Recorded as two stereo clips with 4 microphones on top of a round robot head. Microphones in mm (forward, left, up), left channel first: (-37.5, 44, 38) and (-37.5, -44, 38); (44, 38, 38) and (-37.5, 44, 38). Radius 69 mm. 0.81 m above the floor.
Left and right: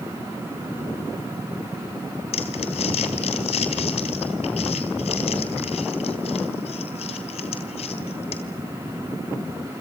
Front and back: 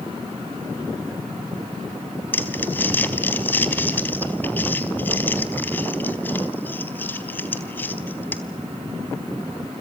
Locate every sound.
2.3 s crumpling: 65° left, 3.5 m